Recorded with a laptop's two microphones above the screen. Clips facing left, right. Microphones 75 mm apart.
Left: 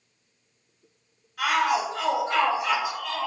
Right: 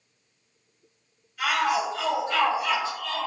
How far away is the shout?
About 1.1 m.